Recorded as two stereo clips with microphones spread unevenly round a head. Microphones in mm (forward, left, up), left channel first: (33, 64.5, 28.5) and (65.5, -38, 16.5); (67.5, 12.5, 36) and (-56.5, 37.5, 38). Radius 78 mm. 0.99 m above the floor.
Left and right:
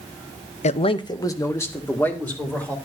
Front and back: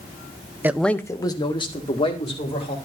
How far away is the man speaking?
About 0.6 m.